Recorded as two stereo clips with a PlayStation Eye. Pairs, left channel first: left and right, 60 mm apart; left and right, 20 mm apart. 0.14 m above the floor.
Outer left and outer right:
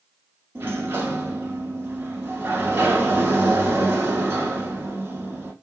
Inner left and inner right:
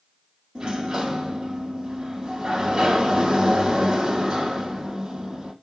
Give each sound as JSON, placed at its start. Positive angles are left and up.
{"t": 0.6, "sound": "a sliding door", "side_deg": -35, "distance_m": 1.0}